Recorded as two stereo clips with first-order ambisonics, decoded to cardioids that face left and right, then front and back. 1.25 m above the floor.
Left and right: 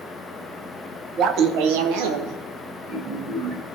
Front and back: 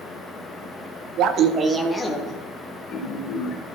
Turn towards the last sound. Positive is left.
turn(degrees=-40)